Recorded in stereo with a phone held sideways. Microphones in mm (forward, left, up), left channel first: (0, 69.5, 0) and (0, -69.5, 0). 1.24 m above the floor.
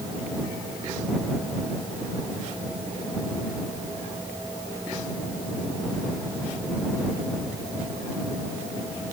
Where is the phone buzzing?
No phone buzzing in this recording.